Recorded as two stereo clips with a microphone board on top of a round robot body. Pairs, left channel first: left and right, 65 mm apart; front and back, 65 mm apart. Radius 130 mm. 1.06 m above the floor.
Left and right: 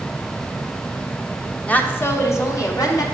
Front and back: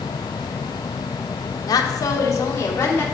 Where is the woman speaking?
15° left, 0.6 m; by 3.0 s 60° left, 1.3 m.